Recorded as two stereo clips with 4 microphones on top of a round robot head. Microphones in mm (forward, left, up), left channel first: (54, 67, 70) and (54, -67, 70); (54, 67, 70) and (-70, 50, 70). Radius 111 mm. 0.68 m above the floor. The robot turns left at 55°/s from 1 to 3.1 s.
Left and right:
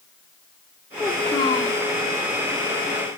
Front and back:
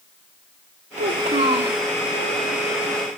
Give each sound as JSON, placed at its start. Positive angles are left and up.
{"t": 1.0, "sound": "a child speaking", "azimuth_deg": 175, "distance_m": 2.0}